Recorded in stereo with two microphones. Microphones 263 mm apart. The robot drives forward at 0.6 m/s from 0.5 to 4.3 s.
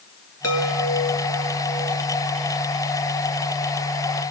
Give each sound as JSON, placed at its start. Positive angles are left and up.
{"t": 0.4, "sound": "a chime", "side_deg": 70, "distance_m": 3.5}